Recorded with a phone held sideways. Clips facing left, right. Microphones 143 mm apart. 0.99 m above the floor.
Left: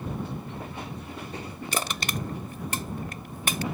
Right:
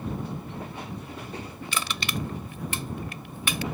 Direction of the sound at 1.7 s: 45° left (ahead or behind).